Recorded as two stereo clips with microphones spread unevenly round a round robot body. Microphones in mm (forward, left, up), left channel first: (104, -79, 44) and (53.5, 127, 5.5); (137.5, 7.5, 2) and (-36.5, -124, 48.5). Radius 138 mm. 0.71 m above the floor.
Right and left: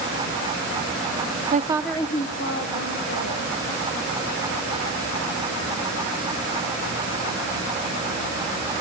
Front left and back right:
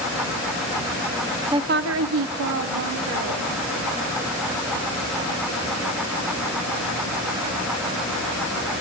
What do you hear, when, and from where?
1.5 s a woman speaking: 135° left, 0.8 m; by 3.5 s 115° right, 3 m